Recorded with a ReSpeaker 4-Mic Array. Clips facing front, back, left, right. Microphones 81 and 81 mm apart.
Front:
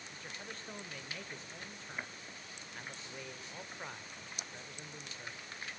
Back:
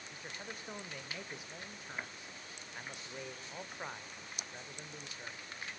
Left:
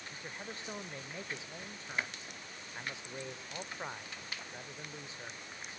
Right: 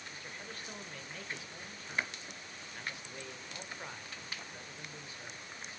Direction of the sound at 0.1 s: 120° left.